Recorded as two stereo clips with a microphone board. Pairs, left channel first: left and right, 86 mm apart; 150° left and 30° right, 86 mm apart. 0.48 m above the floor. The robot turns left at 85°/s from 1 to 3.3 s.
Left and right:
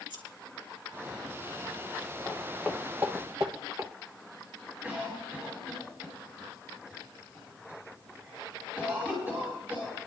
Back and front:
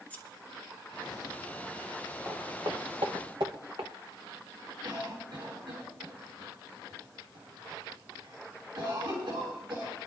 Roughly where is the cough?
Ahead.